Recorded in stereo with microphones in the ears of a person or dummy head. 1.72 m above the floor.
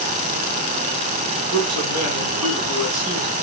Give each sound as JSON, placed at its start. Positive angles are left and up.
{"t": 1.5, "sound": "a man speaking", "side_deg": -80, "distance_m": 6.0}